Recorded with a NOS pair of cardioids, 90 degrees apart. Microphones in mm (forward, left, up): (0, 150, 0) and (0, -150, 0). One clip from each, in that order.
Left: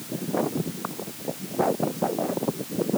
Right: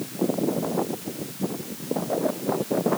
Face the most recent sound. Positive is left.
No sound to turn to.